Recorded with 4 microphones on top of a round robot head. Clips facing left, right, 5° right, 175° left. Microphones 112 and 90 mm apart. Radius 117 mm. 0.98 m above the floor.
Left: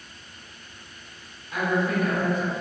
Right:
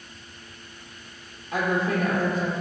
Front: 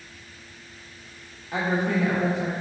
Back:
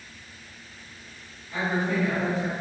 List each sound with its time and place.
1.5 s a woman speaking: 35° right, 1.3 m